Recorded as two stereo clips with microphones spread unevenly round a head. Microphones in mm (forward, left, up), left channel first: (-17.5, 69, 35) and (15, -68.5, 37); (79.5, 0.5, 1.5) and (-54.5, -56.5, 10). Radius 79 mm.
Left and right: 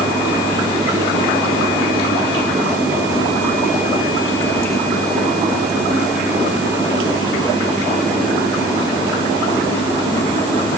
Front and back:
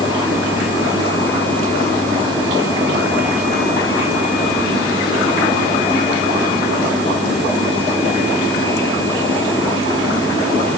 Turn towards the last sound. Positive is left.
No sound to turn to.